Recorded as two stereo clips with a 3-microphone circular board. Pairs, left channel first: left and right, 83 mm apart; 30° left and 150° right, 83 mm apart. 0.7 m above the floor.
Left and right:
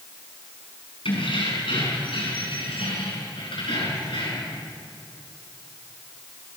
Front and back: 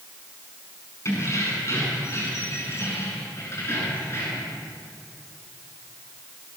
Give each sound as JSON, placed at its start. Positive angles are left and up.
{"t": 1.1, "sound": "keys jangling", "azimuth_deg": 85, "distance_m": 5.5}